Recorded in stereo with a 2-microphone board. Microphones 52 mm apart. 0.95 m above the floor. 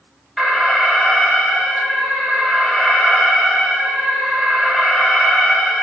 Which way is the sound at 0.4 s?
5° right (ahead or behind).